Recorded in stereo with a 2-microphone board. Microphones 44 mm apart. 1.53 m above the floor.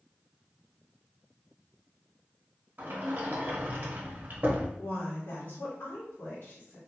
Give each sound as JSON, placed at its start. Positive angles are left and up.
{"t": 2.8, "sound": "a sliding door", "side_deg": -40, "distance_m": 0.8}
{"t": 4.8, "sound": "a woman speaking", "side_deg": 60, "distance_m": 1.5}